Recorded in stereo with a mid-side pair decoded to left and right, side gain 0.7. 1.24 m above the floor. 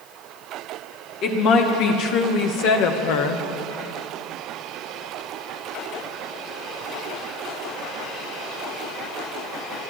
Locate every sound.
1.2 s a woman speaking: 55° left, 2 m; by 3.5 s 80° left, 1.0 m